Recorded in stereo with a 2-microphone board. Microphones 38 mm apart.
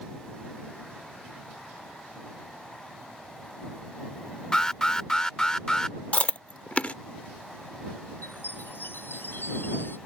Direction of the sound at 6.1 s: 35° left (ahead or behind).